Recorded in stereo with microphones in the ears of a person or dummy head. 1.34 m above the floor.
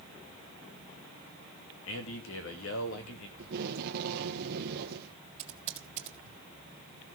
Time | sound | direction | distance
1.9 | a man speaking | 70° left (ahead or behind) | 2.5 m
3.4 | tape being pulled | 55° right (ahead or behind) | 1.6 m
5.4 | typing on a keyboard | 40° right (ahead or behind) | 2.0 m